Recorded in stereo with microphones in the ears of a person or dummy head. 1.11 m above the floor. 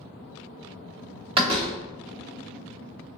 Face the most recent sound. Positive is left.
turn(degrees=-35)  # may be behind; listen again after turning